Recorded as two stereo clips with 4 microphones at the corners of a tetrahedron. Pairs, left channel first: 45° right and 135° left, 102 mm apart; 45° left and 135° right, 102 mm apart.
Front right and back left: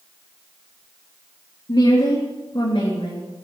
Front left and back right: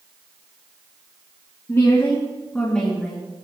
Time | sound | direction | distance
1.7 | a woman speaking | 15° right | 3.5 m